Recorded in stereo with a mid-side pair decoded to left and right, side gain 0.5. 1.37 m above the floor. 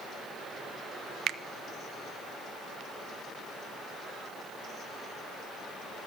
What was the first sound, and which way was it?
A finger snap, 60° right.